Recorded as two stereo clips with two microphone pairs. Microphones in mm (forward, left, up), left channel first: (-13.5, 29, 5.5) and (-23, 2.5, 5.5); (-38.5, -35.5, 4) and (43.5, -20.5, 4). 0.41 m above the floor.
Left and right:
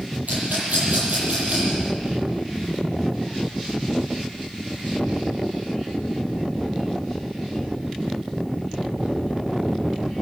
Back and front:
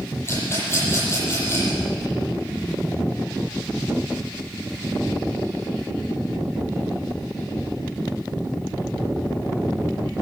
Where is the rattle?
110° right, 10 m.